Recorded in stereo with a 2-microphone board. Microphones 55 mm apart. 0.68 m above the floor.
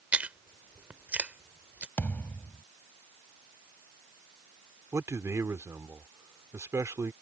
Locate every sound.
0.1 s chewing: 30° right (ahead or behind)
2.0 s a thud: 35° left (ahead or behind)
4.9 s a man speaking: 70° right (ahead or behind)